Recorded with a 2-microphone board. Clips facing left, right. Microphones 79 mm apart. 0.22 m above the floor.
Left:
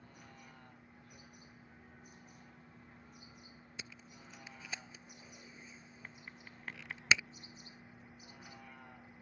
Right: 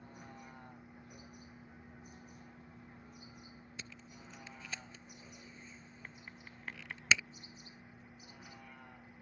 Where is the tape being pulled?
10° left (ahead or behind).